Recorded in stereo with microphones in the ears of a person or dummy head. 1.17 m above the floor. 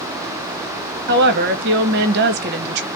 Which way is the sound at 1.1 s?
55° right (ahead or behind).